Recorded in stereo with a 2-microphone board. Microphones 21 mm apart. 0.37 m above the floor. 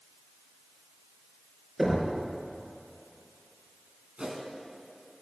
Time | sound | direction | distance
1.8 | knocking | 10° right (ahead or behind) | 4.5 m
4.2 | a whoosh | 40° right (ahead or behind) | 2 m